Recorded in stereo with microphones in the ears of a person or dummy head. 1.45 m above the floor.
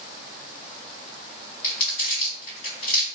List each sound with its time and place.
1.6 s crumpling: 45° left (ahead or behind), 1.6 m